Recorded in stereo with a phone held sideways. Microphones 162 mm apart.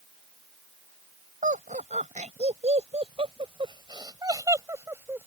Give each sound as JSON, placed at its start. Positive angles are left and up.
{"t": 1.4, "sound": "laughter", "side_deg": -55}